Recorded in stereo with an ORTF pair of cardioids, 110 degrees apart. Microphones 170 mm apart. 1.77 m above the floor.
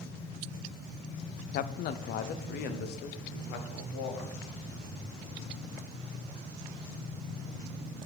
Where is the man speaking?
55° left, 0.6 m; by 4.3 s 75° left, 2.0 m.